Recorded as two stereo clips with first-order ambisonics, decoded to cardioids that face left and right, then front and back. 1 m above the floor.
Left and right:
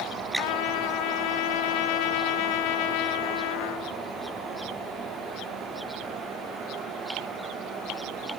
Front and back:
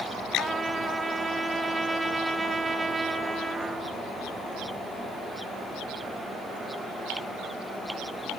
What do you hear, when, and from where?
0.4 s a trumpet: 95° left, 1.0 m